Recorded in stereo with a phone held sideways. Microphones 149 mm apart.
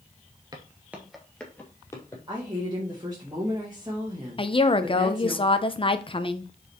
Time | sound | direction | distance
0.5 | footsteps | 25° right (ahead or behind) | 1.5 m
2.3 | a woman speaking | 25° right (ahead or behind) | 2.0 m
4.4 | a woman speaking | 35° left (ahead or behind) | 0.7 m